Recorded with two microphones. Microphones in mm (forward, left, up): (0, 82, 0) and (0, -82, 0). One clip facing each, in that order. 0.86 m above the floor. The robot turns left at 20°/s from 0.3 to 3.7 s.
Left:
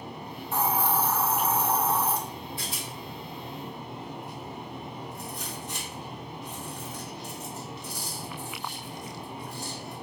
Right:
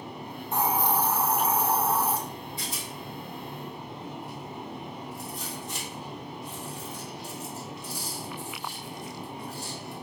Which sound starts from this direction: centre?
A hiss, at 0.5 s.